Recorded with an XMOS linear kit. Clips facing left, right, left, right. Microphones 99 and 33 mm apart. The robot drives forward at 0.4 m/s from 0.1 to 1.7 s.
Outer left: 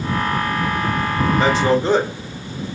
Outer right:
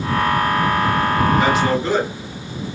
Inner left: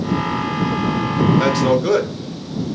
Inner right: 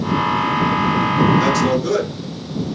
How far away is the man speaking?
About 0.7 m.